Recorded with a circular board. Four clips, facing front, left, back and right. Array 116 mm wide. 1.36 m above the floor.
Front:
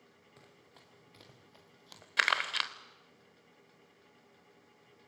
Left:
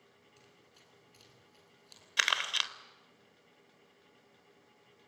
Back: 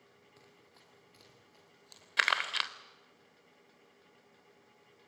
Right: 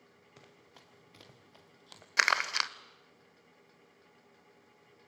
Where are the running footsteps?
80° right, 2.5 m; by 2.1 s 55° right, 2.5 m.